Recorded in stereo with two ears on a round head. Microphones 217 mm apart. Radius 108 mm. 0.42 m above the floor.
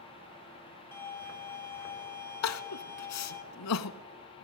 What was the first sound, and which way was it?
A violin, 10° left (ahead or behind).